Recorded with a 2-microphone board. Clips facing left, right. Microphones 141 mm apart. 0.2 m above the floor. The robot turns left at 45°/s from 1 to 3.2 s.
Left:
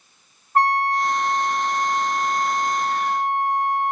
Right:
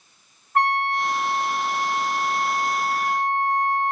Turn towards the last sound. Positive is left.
turn(degrees=15)